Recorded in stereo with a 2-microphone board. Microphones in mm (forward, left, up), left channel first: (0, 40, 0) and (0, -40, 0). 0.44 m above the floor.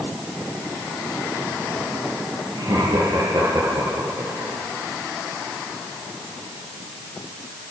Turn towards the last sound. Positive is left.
turn(degrees=-55)  # may be behind; listen again after turning